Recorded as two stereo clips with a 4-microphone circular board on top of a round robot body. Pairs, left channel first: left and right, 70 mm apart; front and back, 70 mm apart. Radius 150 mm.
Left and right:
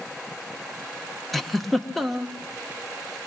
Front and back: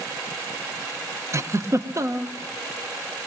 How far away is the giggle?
About 1.8 m.